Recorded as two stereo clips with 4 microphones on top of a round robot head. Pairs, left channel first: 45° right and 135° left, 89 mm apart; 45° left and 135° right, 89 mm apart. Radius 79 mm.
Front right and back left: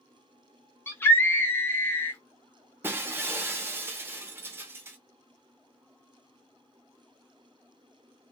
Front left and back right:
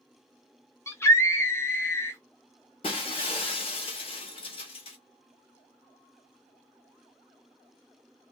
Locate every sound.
0.9 s a scream: 5° left, 0.9 m
2.8 s breaking glass: 70° left, 0.6 m